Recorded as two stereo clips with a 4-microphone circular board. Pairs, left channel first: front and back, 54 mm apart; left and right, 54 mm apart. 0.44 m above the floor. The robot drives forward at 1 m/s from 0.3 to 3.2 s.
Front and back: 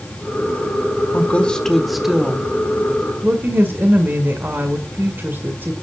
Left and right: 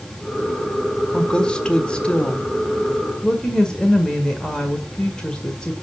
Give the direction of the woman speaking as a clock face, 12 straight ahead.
11 o'clock.